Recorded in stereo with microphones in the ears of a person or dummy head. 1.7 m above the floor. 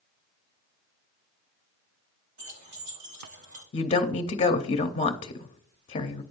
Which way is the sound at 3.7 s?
30° left (ahead or behind).